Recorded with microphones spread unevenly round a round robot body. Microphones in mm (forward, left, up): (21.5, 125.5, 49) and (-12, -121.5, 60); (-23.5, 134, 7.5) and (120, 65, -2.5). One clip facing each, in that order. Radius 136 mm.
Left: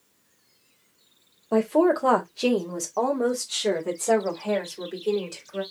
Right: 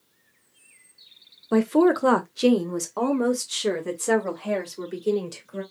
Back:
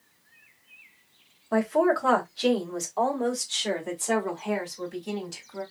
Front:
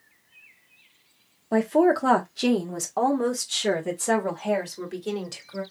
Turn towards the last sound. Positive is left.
turn(degrees=-30)